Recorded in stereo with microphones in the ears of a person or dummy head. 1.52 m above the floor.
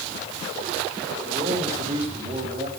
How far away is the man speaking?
About 3.5 m.